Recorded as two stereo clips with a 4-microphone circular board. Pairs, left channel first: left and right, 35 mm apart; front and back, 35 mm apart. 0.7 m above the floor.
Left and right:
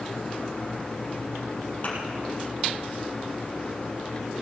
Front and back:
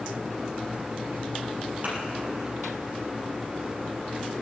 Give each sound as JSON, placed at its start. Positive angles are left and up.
{"t": 1.8, "sound": "a thud", "azimuth_deg": 140, "distance_m": 5.0}